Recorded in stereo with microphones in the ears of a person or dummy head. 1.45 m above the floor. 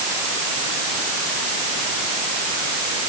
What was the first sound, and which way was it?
Only background noise.